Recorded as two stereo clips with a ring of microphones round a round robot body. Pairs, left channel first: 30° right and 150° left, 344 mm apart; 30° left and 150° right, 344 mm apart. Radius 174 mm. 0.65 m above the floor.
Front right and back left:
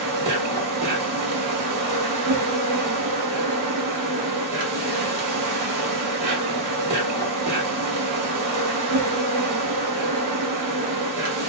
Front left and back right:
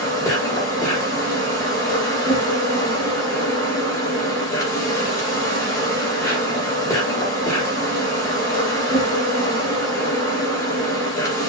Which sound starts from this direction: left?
An insect, at 0.0 s.